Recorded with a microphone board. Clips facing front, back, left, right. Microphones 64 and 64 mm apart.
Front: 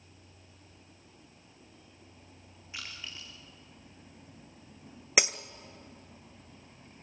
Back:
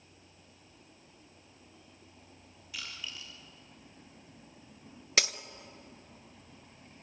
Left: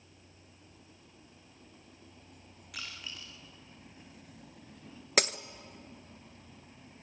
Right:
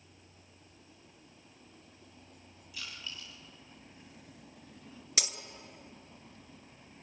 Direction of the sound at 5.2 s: 70° left.